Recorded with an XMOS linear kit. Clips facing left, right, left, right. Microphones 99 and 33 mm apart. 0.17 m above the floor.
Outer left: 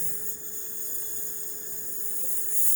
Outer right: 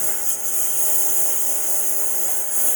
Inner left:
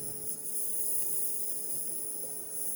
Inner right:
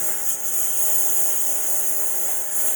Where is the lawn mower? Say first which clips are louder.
Outer right 11 dB, inner right 14 dB; 80° right; by 2.8 s 70° right (ahead or behind).